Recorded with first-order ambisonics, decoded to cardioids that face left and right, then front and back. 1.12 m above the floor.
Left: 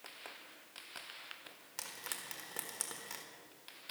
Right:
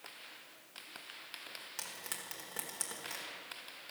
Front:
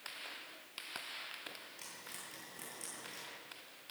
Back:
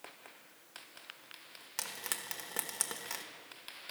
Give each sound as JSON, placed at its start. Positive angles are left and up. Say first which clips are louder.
{"t": 1.8, "sound": "frying", "louder": "left 2 dB, back 9 dB", "azimuth_deg": 175, "distance_m": 1.4}